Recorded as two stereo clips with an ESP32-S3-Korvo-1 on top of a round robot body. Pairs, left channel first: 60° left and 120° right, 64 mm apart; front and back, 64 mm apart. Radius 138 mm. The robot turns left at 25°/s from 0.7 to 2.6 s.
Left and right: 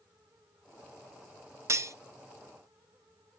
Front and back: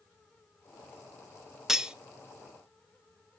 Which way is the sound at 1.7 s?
100° right.